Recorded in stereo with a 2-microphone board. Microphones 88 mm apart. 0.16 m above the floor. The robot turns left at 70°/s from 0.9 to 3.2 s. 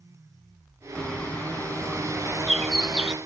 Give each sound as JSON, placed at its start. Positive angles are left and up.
{"t": 0.9, "sound": "a bird", "side_deg": 15, "distance_m": 0.6}